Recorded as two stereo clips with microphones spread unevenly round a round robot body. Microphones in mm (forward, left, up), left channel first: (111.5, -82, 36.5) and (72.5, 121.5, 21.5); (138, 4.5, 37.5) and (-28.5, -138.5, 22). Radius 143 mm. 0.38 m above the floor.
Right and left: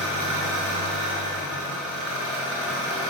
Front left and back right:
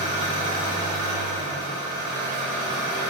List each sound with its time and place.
0.0 s an engine running: 145° left, 0.9 m